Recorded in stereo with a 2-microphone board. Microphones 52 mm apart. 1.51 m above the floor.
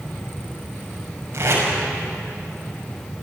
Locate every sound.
1.3 s tape being pulled: 50° right (ahead or behind), 6.5 m